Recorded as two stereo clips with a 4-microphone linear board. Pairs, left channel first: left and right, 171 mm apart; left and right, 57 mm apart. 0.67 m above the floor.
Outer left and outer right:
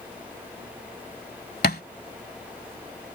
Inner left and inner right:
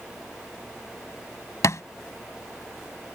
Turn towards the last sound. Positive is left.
turn(degrees=65)  # may be behind; listen again after turning